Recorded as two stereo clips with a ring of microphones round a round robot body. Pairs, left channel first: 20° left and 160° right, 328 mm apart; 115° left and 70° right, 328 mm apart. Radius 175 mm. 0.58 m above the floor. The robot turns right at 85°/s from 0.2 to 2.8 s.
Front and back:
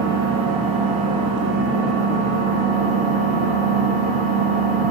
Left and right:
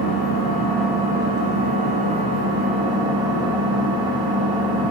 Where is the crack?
I don't hear a crack.